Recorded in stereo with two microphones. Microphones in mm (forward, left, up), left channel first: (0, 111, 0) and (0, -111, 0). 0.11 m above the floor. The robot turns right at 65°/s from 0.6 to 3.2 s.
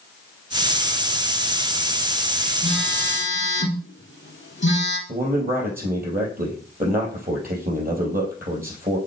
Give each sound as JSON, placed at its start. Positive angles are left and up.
{"t": 2.6, "sound": "a phone buzzing", "azimuth_deg": 35, "distance_m": 1.8}
{"t": 5.1, "sound": "a man speaking", "side_deg": -40, "distance_m": 3.5}